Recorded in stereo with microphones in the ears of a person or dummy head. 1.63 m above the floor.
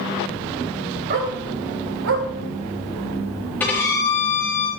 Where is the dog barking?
50° right (ahead or behind), 2.5 m; by 2.3 s 55° right (ahead or behind), 2 m.